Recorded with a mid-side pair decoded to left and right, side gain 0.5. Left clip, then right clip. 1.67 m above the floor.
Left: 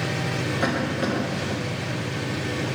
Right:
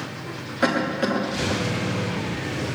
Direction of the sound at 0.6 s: 25° right.